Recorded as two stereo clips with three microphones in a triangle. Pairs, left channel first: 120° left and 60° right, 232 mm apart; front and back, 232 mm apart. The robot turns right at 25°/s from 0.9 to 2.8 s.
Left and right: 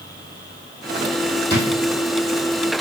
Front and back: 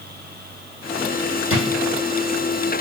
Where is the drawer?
160° left, 2 m; by 1.7 s 165° left, 2 m.